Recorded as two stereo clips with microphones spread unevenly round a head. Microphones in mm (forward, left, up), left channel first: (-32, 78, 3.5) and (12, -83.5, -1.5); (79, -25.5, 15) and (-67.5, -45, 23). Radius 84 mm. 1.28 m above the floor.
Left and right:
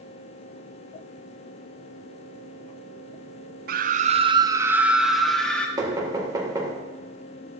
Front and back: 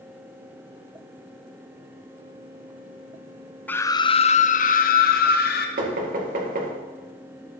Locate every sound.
3.7 s a scream: 65° right, 0.6 m; by 5.7 s 20° left, 1.2 m
5.8 s knocking: 145° right, 2 m